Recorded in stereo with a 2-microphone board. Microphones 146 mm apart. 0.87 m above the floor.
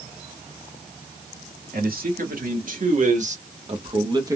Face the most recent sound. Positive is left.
turn(degrees=-20)  # may be behind; listen again after turning